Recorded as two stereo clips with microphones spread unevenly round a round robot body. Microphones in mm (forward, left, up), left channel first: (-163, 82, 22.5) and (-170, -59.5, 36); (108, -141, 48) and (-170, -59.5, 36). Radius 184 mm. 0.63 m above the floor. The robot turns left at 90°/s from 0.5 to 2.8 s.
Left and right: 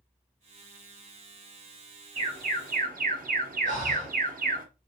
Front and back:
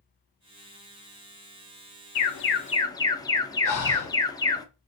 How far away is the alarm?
About 0.7 m.